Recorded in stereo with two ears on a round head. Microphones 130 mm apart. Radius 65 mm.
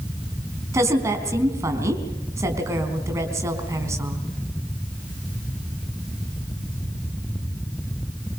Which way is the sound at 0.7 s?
20° right (ahead or behind).